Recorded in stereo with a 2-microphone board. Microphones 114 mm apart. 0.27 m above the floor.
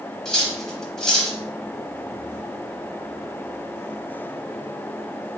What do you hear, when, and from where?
0.2 s cutlery clinking: 5° left (ahead or behind), 0.8 m